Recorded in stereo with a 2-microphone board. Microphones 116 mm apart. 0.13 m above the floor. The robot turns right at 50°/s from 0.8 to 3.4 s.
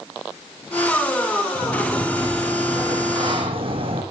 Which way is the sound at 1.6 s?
145° left.